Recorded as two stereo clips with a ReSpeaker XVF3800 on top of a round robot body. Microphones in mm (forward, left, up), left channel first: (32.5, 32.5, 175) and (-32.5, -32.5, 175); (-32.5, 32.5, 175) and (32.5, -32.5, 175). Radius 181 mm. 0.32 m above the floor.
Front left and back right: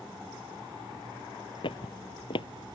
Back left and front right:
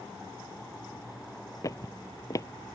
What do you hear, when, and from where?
1.6 s footsteps: 80° left